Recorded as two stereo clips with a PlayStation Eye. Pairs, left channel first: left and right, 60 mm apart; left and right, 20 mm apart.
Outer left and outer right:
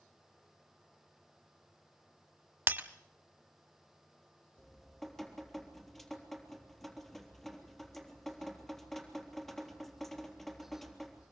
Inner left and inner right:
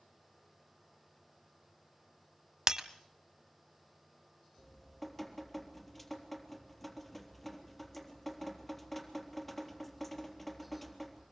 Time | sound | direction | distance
2.7 | breaking glass | 30° right (ahead or behind) | 1.1 m
4.6 | dripping | 10° left (ahead or behind) | 3.5 m